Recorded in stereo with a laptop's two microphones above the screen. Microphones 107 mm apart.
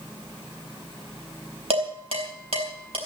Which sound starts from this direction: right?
Dishes clattering, at 1.7 s.